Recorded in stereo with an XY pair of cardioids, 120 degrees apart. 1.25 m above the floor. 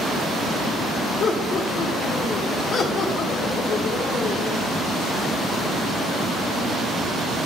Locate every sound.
1.2 s laughter: 45° left, 1.8 m